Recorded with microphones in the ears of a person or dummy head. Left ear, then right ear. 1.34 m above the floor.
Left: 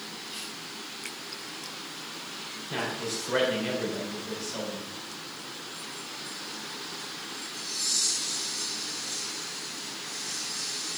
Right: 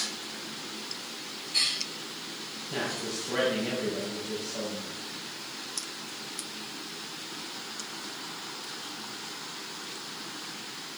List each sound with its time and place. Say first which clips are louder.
2.7 s a man speaking: left 1 dB; 60° left (ahead or behind), 4.5 m